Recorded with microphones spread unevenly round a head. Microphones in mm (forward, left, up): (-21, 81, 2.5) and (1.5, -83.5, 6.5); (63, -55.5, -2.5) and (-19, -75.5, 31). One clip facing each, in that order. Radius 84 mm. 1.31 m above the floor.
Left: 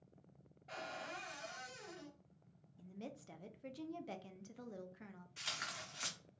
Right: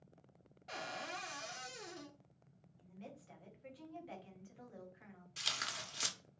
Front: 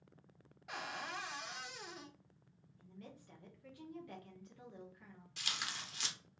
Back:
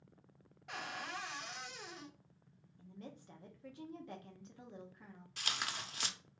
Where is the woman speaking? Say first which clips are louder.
Left 4 dB, back 3 dB; 115° left, 0.6 m.